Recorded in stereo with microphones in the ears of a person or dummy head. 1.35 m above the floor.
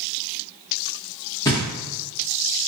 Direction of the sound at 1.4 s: 15° left (ahead or behind).